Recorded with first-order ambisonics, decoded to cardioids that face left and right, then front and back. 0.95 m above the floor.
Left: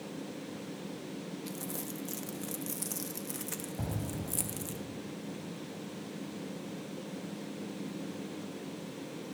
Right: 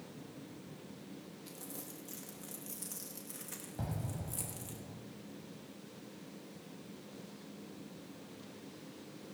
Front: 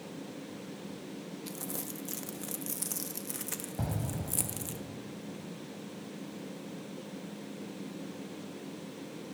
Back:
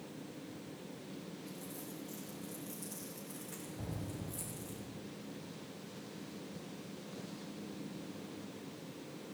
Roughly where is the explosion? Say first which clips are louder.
Left 5 dB, front 7 dB; ahead.